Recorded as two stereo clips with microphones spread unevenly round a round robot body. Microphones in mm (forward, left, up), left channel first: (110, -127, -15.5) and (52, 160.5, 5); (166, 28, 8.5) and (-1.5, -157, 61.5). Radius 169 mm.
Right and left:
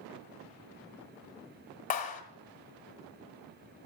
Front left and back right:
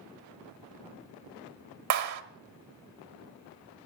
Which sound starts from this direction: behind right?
A clap, at 1.9 s.